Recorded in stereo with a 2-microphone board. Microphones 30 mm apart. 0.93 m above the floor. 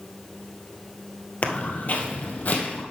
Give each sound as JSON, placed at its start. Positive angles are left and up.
{"t": 1.4, "sound": "footsteps", "side_deg": 45, "distance_m": 1.2}